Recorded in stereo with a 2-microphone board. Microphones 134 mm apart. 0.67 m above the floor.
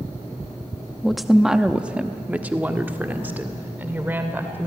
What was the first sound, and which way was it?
A woman speaking, 5° left (ahead or behind).